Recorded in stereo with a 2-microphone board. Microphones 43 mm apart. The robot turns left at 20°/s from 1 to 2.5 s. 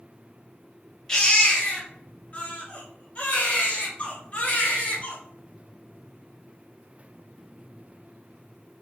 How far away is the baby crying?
About 1.3 m.